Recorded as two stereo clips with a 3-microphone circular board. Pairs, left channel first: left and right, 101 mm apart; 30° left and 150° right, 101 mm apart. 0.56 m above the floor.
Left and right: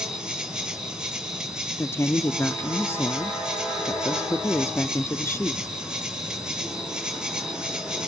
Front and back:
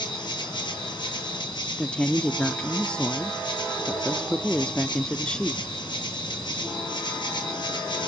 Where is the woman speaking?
95° left, 0.7 m.